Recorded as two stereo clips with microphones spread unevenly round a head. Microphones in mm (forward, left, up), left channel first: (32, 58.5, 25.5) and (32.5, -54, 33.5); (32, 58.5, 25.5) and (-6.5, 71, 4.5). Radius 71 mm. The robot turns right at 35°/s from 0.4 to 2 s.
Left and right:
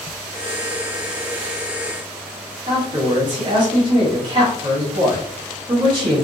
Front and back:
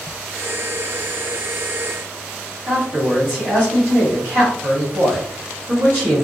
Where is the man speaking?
145° right, 1.1 m.